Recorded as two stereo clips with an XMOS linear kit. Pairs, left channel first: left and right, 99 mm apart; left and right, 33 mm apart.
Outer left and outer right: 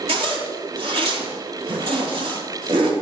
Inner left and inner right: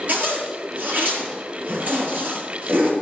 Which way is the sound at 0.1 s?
70° right (ahead or behind).